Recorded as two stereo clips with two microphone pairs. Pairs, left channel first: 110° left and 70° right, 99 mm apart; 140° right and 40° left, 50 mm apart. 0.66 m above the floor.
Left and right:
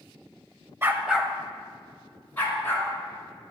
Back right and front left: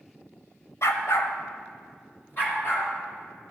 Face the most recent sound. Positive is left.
turn(degrees=175)